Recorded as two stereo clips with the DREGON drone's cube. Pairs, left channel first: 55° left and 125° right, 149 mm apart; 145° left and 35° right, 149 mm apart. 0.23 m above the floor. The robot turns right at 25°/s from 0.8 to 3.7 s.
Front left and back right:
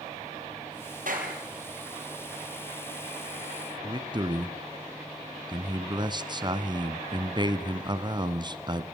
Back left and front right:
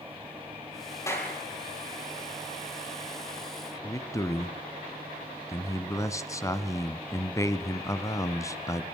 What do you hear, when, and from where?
1.1 s a clap: 145° right, 5 m; by 1.4 s 135° right, 5 m
3.8 s a man speaking: 160° right, 1.5 m